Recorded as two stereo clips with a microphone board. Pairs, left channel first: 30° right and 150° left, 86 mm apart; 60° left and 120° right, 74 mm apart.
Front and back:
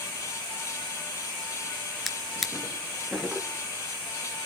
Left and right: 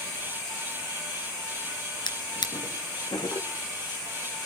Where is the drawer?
60° left, 3 m.